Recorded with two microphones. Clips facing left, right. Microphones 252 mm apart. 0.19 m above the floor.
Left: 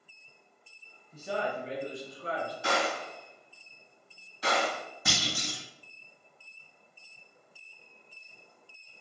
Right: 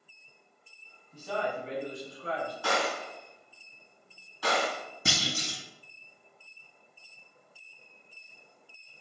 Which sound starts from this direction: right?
A clunk, at 5.0 s.